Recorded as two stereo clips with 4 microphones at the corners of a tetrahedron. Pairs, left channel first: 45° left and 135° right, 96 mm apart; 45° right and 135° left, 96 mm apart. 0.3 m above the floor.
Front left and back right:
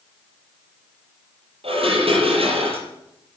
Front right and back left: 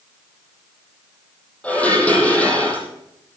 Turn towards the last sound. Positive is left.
turn(degrees=-120)